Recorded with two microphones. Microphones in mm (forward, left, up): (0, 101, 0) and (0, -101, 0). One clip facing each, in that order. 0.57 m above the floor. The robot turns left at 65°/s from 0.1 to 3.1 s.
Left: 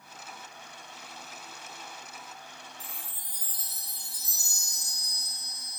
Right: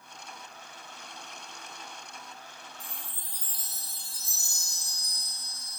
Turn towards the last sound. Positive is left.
turn(degrees=-30)  # may be behind; listen again after turning